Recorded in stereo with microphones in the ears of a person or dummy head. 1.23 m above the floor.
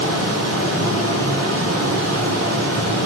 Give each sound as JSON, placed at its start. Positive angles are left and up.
{"t": 0.0, "sound": "a fan", "side_deg": -70, "distance_m": 1.8}